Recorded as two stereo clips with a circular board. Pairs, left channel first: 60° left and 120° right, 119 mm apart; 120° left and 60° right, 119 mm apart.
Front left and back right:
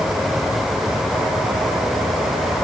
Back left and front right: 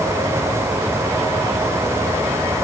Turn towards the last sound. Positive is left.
No sound to turn to.